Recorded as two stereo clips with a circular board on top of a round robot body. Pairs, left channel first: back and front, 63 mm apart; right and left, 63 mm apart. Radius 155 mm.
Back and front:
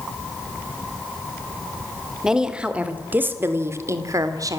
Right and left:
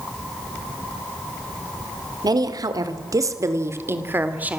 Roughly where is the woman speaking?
Left.